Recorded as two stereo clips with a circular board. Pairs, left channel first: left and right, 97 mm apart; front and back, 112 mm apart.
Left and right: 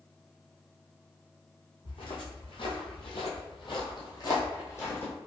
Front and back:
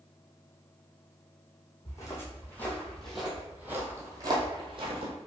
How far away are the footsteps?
About 1.5 m.